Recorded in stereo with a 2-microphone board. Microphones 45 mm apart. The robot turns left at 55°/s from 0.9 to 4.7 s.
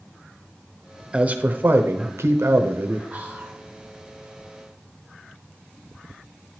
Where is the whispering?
25° right (ahead or behind), 2 m; by 3.6 s 55° right (ahead or behind), 2 m.